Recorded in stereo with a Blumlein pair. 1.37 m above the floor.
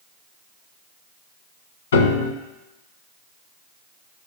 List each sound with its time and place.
1.9 s a piano: 65° left, 1.0 m